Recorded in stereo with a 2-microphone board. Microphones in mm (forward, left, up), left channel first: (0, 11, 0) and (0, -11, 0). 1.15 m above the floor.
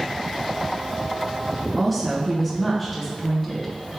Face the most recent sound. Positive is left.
turn(degrees=0)  # may be behind; listen again after turning